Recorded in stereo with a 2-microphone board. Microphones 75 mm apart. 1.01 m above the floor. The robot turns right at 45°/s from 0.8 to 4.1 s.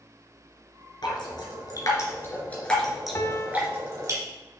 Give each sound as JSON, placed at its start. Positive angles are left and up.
{"t": 1.0, "sound": "dripping", "side_deg": 75, "distance_m": 3.0}
{"t": 3.1, "sound": "a piano", "side_deg": 40, "distance_m": 0.9}